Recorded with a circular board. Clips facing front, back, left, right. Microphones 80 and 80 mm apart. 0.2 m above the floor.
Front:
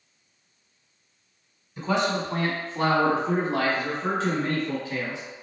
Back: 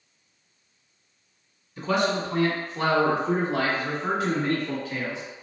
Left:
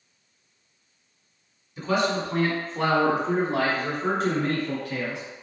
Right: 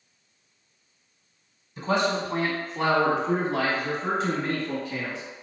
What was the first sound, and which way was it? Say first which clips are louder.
A man speaking: back 1 dB, even; 55° right.